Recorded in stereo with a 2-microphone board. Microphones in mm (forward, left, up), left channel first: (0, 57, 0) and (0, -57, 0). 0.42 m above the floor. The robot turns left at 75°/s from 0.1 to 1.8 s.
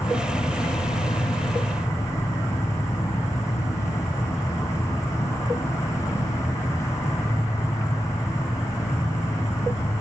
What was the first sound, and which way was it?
An insect, 155° left.